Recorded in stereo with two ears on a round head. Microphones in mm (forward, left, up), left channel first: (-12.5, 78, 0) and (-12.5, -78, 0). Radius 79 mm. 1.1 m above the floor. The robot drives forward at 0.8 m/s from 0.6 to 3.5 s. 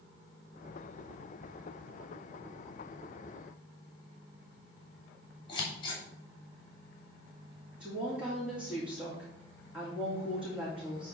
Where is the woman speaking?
5° right (ahead or behind), 2 m.